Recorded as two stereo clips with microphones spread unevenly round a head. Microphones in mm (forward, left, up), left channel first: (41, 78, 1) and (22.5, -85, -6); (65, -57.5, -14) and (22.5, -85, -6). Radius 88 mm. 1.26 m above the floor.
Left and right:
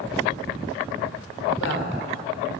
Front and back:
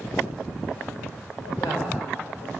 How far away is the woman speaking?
About 4.5 m.